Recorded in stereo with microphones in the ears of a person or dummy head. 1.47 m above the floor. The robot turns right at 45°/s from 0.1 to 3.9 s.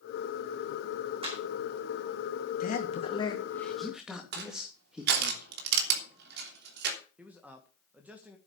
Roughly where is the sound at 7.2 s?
Centre.